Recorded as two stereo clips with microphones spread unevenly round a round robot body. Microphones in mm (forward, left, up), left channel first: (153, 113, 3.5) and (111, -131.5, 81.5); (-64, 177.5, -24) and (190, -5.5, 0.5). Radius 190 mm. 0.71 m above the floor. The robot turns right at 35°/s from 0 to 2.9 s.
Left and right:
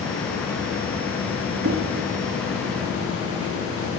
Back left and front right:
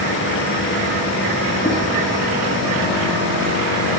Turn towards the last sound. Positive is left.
turn(degrees=-110)